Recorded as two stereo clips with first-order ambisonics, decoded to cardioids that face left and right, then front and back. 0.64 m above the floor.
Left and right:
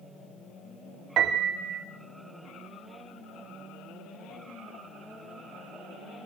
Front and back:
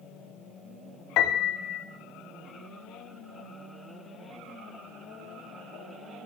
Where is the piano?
40° right, 1.4 m.